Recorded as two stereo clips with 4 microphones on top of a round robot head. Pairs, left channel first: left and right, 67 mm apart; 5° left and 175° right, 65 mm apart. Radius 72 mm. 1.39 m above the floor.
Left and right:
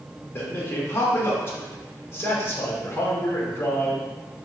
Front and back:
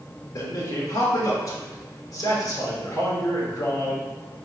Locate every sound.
0.3 s a man speaking: 35° left, 1.2 m